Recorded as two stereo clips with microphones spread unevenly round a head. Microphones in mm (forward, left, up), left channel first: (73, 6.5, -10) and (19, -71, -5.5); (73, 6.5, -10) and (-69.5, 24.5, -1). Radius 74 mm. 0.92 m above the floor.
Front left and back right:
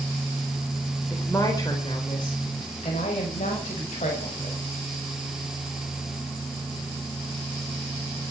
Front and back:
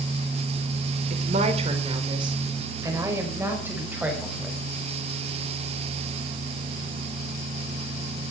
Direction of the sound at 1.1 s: 135° left.